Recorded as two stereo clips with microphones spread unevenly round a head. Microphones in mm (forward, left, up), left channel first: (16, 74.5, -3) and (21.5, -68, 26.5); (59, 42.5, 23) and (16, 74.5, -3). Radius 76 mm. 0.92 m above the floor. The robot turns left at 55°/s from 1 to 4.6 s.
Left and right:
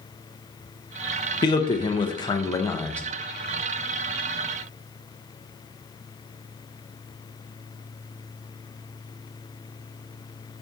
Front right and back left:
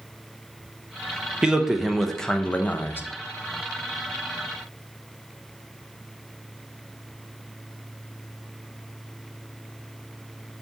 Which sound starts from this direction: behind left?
A man speaking, at 1.4 s.